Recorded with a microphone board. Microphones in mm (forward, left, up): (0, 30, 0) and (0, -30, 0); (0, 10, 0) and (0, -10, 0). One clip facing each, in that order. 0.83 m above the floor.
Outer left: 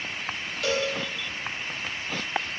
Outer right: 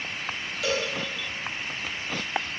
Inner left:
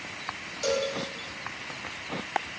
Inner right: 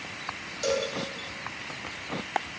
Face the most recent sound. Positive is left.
turn(degrees=0)  # may be behind; listen again after turning